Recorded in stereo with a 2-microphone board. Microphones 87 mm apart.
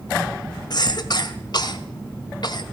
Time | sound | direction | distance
0.7 | a cough | 55° left (ahead or behind) | 1.9 m